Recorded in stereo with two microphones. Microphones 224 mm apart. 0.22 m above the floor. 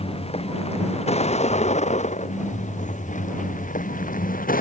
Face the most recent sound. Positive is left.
turn(degrees=40)  # may be behind; listen again after turning